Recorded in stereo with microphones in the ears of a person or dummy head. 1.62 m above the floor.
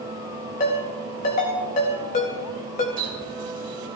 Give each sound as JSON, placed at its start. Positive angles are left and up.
{"t": 0.6, "sound": "a ringtone", "side_deg": 35, "distance_m": 2.0}
{"t": 3.0, "sound": "a running tap", "side_deg": -40, "distance_m": 3.0}